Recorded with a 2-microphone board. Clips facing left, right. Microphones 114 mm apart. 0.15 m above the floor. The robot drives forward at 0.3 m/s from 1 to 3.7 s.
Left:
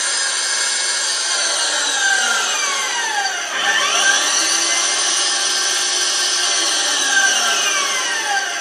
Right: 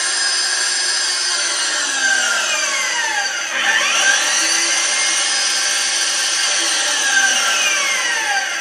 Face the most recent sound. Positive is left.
turn(degrees=25)  # may be behind; listen again after turning